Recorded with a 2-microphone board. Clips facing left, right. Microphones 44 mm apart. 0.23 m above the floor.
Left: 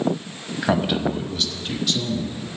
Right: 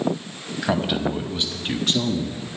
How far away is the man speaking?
About 1.0 m.